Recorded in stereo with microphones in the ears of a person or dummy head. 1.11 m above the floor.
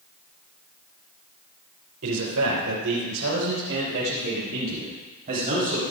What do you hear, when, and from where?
2.0 s a man speaking: 80° right, 4.5 m; by 5.8 s 45° right (ahead or behind), 7.5 m